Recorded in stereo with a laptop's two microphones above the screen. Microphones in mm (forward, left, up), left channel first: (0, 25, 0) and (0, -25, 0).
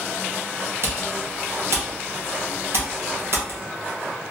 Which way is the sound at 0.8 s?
55° right (ahead or behind).